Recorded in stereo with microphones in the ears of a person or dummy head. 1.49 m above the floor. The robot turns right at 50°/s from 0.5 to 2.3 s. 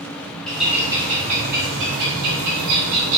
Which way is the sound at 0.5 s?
175° left.